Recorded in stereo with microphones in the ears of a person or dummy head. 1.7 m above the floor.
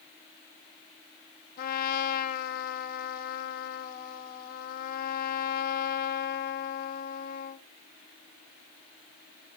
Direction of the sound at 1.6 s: 55° left (ahead or behind).